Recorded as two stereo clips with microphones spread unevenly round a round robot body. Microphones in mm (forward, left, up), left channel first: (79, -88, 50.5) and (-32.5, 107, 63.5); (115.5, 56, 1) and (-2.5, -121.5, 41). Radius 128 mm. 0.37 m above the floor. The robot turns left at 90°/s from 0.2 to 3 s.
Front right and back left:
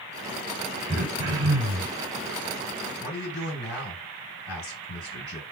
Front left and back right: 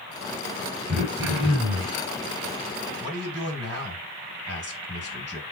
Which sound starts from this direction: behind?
Throat clearing, at 0.9 s.